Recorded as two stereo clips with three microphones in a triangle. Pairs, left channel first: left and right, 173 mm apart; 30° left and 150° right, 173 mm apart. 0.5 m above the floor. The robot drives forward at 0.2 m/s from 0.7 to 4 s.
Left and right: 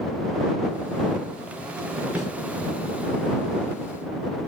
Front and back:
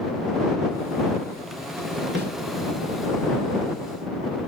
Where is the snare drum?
175° right, 3.5 m.